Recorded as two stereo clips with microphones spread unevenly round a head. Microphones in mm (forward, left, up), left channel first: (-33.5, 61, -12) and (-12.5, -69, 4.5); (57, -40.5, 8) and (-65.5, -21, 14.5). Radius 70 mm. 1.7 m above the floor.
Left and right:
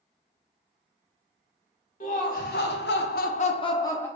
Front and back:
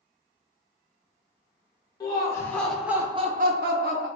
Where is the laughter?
55° left, 1.0 m; by 4.1 s 170° left, 0.8 m.